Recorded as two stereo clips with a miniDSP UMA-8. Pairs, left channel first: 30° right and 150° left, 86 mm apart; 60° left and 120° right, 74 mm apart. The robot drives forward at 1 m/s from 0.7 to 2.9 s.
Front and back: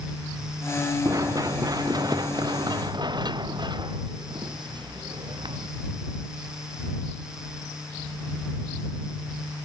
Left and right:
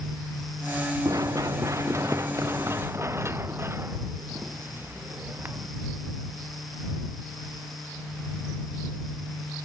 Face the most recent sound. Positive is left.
turn(degrees=180)